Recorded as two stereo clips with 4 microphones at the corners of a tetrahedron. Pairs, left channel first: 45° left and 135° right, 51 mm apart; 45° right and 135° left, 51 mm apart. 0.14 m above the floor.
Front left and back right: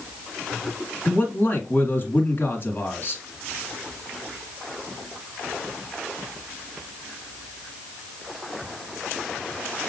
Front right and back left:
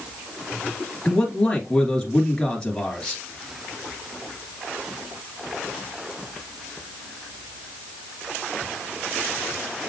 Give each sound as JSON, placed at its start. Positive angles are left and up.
{"t": 1.1, "sound": "a man speaking", "azimuth_deg": 20, "distance_m": 1.9}